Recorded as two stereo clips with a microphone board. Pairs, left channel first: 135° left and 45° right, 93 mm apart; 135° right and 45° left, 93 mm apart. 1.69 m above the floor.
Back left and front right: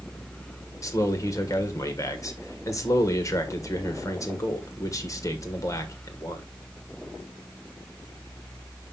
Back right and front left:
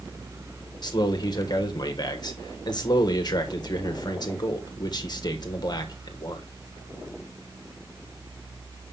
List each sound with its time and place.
0.8 s a man speaking: 175° right, 1.3 m